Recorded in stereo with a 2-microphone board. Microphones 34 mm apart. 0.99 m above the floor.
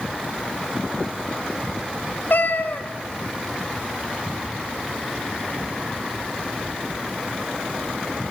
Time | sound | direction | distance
2.3 | a cat meowing | 65° left (ahead or behind) | 1.7 m